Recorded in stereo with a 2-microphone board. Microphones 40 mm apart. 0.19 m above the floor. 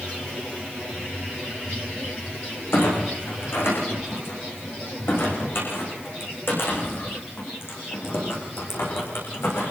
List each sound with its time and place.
2.7 s a clunk: 75° left (ahead or behind), 9 m